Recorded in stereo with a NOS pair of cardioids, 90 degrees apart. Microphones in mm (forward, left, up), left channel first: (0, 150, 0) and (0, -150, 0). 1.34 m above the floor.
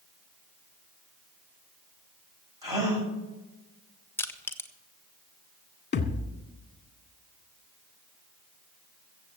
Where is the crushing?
10° left, 1.5 m.